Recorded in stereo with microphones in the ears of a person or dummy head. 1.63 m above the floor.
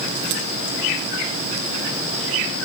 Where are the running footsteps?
No running footsteps in this recording.